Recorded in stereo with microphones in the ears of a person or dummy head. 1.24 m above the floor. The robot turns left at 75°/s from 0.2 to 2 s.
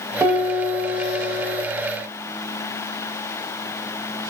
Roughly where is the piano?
Ahead.